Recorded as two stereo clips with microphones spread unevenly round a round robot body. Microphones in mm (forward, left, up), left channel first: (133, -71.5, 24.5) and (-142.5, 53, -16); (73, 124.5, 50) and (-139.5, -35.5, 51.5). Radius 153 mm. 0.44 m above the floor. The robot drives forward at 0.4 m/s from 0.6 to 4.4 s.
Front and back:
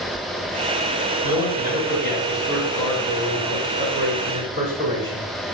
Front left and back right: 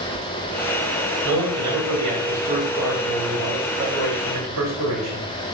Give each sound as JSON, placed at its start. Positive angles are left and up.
{"t": 1.2, "sound": "a man speaking", "azimuth_deg": -145, "distance_m": 3.0}